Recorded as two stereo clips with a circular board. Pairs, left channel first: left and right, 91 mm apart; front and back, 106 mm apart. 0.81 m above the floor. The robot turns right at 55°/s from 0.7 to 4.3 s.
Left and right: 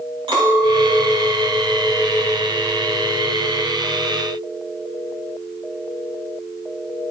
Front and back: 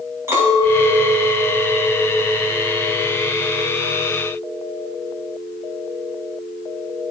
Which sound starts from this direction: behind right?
A clink, at 0.3 s.